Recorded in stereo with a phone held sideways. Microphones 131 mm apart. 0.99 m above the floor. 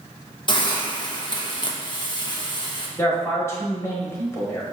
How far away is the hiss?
About 0.7 m.